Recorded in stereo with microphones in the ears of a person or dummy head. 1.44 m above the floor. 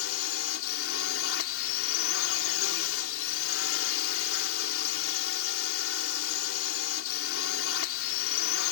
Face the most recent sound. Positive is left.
turn(degrees=80)